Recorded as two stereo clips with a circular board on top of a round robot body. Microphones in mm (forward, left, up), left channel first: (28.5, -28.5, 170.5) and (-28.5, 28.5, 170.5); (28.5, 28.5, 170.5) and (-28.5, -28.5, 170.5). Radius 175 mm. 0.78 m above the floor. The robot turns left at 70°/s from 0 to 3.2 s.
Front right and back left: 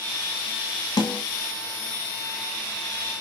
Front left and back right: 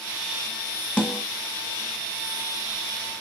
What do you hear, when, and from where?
1.0 s a snare drum: 30° right, 1.3 m; by 1.2 s 45° right, 1.3 m